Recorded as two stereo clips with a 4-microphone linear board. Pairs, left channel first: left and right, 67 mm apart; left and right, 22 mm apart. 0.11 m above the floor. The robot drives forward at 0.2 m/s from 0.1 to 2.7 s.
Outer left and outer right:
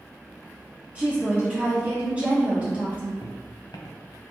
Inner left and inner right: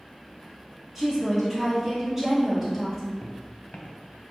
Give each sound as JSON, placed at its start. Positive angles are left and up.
{"t": 0.9, "sound": "a woman speaking", "side_deg": -20, "distance_m": 1.5}
{"t": 3.2, "sound": "footsteps", "side_deg": 75, "distance_m": 0.8}